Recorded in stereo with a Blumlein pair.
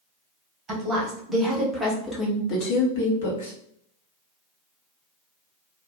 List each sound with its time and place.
0.7 s a woman speaking: 20° right, 1.5 m; by 3.5 s 70° left, 1.2 m